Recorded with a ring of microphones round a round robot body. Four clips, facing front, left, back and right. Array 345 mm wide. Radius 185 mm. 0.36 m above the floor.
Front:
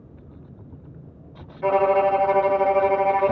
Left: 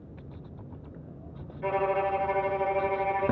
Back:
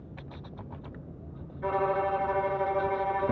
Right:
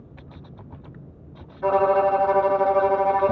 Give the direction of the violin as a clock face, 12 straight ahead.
1 o'clock.